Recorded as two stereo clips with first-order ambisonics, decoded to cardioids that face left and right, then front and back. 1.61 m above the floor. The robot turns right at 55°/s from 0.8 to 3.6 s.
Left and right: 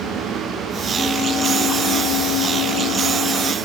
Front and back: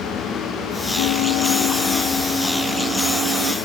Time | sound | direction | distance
1.0 | a bell | 5° left | ?